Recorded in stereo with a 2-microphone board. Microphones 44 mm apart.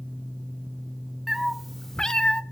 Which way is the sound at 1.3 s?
5° right (ahead or behind).